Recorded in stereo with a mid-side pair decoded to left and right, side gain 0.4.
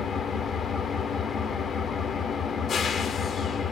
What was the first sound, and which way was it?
An engine running, 60° left.